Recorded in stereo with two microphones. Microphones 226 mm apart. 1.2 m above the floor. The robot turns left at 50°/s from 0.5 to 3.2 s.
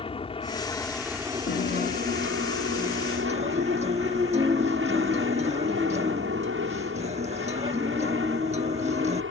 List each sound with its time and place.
0.0 s an aircraft: 25° left; by 9.3 s 110° right
1.5 s a guitar: 55° left; by 9.2 s 30° right